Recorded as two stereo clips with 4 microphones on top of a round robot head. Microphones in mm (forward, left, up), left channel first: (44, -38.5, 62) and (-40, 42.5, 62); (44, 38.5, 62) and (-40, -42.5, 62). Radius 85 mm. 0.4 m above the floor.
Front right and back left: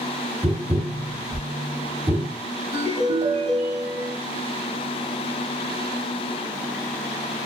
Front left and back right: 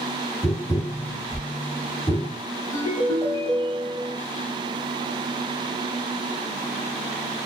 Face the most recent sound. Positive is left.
turn(degrees=115)